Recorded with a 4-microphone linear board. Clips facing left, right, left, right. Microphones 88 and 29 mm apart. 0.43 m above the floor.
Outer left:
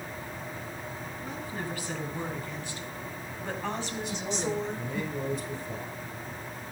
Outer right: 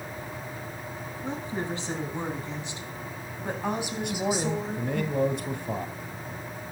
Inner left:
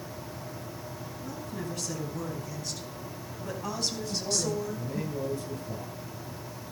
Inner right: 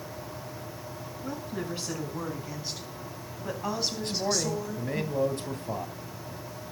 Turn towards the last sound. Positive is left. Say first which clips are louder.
# outer right 6 dB, inner right 3 dB
turn(degrees=-65)  # may be behind; listen again after turning